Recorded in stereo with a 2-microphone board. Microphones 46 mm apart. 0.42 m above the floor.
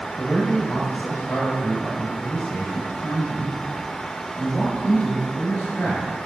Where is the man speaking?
55° left (ahead or behind), 2.5 m.